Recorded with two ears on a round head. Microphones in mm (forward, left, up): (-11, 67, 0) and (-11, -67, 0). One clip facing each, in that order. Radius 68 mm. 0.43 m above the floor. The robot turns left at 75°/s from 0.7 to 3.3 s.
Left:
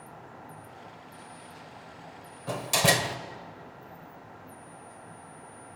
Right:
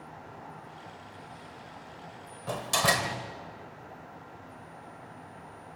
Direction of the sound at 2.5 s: Straight behind.